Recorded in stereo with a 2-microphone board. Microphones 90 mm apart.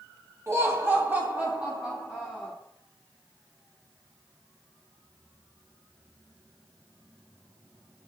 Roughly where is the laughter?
Right.